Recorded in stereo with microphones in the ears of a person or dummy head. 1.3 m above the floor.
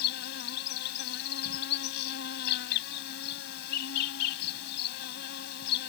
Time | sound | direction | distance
0.0 | an insect | 65° left (ahead or behind) | ?